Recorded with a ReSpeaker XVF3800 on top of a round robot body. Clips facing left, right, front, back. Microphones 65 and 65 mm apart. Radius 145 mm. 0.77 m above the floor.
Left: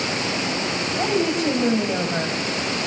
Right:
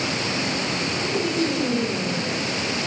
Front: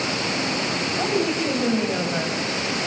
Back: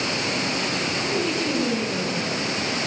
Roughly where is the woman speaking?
Ahead left.